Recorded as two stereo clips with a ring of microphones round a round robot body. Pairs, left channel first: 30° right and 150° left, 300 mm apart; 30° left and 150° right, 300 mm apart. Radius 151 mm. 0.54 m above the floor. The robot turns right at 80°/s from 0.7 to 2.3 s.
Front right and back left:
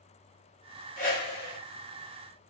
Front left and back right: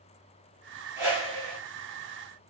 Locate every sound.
1.0 s a whoosh: 80° right, 1.5 m; by 1.6 s 30° right, 1.5 m